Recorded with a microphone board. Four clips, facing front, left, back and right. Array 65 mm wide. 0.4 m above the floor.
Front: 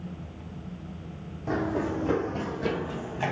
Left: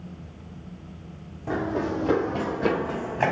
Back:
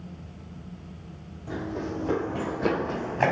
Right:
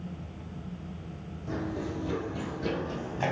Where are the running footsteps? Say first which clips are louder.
Left 8 dB, front 4 dB; 50° left, 0.8 m; by 3.3 s 145° left, 1.1 m.